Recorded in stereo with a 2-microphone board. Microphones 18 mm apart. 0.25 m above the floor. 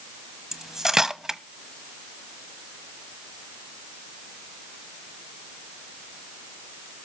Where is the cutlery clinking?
25° right (ahead or behind), 1.0 m.